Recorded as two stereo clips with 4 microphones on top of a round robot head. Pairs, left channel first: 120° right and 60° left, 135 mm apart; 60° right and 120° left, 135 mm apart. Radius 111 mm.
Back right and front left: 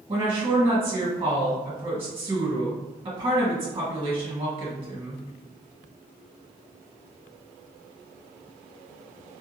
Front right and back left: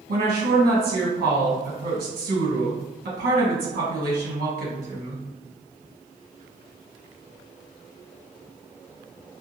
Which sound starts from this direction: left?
A woman speaking, at 0.1 s.